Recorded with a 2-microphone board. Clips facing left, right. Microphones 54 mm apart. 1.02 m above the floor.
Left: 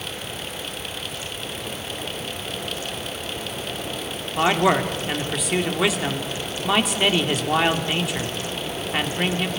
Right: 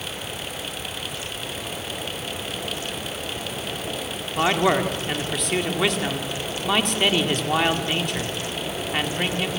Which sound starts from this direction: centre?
A man speaking, at 4.4 s.